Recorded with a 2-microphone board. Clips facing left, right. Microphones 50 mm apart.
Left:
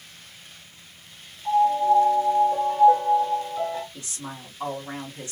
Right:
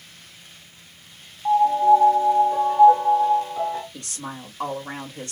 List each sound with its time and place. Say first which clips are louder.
1.4 s a piano: right 4 dB; 40° right (ahead or behind), 1.6 m
3.9 s a woman speaking: right 3 dB; 60° right (ahead or behind), 1.6 m